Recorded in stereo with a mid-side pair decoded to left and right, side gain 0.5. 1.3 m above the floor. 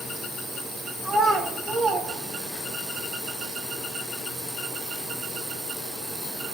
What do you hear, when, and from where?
1.0 s a child speaking: 15° right, 5 m; by 2.8 s 30° right, 4.5 m